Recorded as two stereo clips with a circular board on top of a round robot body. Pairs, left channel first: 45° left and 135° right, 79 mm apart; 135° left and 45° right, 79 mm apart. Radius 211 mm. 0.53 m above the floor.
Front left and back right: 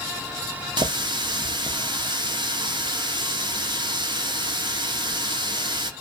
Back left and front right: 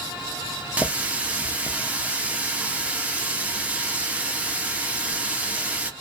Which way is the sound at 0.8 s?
120° right.